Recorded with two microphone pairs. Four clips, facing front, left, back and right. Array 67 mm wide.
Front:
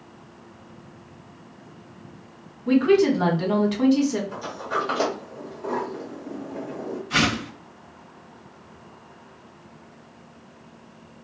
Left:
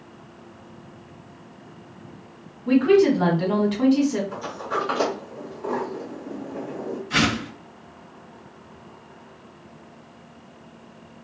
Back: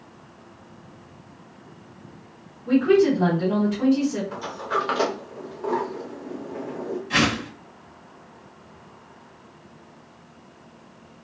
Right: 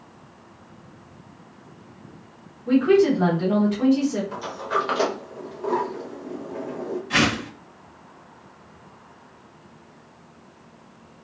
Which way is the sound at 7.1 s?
145° right.